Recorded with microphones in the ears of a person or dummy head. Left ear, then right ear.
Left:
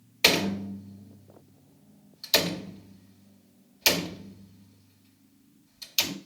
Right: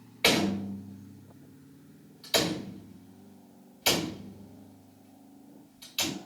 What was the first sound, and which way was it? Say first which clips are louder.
A door slam: left 2 dB; 35° left (ahead or behind).